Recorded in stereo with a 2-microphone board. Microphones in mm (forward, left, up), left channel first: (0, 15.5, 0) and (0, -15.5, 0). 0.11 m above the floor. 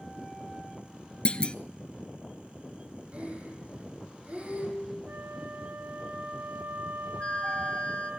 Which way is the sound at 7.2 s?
35° left (ahead or behind).